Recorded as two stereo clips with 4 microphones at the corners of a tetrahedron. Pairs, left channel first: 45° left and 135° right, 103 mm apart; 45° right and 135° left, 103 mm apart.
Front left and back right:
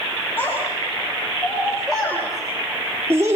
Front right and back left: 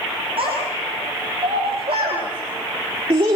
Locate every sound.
0.4 s a child speaking: 115° left, 5.5 m; by 3.4 s 170° left, 2.0 m